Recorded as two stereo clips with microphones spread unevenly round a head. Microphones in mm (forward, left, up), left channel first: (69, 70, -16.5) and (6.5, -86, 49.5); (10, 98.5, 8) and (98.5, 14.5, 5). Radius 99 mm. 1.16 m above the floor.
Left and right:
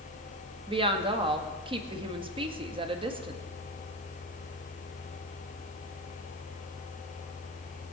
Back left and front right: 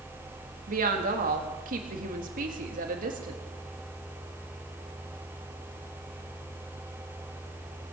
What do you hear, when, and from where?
0.7 s a woman speaking: 50° right, 1.8 m